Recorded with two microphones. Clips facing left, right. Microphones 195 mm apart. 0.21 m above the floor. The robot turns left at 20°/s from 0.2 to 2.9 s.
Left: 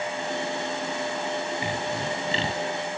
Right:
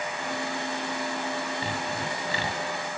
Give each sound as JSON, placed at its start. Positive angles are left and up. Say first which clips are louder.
{"t": 1.6, "sound": "sawing", "louder": "left 3 dB", "side_deg": 15, "distance_m": 1.4}